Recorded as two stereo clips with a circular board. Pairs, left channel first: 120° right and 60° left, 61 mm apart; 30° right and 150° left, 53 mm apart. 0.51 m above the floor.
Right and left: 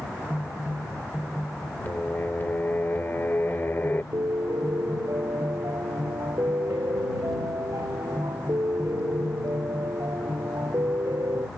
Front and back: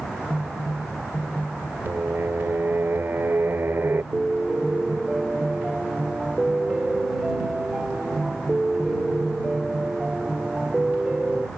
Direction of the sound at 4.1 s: 70° left.